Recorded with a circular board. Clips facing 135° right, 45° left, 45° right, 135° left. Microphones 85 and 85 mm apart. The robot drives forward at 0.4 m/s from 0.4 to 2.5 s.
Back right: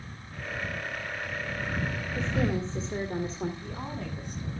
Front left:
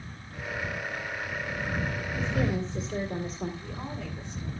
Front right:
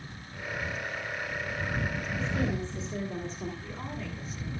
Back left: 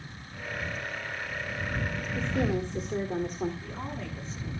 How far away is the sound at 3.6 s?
About 8 m.